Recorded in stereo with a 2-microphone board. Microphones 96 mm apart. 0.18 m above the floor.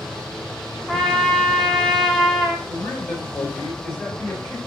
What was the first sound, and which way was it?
A trumpet, 5° left (ahead or behind).